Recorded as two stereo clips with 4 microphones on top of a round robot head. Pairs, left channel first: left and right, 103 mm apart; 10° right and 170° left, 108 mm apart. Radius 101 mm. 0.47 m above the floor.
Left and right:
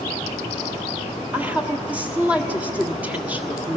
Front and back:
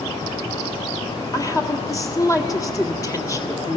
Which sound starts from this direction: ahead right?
A woman speaking, at 1.3 s.